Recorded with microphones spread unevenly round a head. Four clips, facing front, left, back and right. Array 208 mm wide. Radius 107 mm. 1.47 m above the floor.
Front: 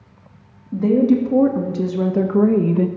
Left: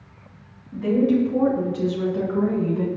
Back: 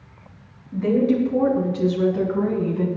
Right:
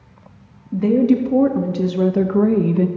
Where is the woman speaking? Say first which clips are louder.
Right 4 dB, front 4 dB; 50° right, 2.5 m; by 2.9 s 35° right, 1.4 m.